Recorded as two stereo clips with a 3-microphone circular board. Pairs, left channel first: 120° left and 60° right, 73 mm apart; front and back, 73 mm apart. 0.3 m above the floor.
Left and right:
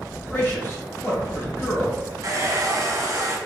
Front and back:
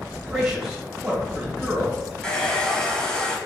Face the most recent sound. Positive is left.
turn(degrees=-75)